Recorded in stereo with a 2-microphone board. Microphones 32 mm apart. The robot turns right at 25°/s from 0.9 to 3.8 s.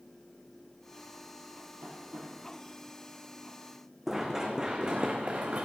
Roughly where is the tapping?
Right.